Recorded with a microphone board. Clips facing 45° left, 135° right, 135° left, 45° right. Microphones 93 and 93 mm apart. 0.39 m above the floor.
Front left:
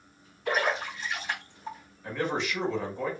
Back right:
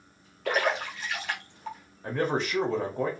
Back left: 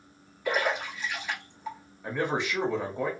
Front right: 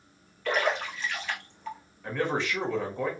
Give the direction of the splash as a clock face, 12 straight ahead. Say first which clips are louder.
Back right 1 dB, front right 1 dB; 5 o'clock.